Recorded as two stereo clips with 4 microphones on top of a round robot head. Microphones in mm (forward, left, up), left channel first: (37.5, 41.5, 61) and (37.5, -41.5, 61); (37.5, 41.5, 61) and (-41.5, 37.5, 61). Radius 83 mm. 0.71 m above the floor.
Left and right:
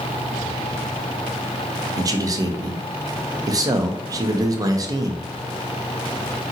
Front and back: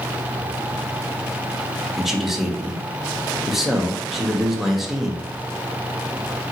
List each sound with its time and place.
2.0 s a man speaking: 90° right, 0.5 m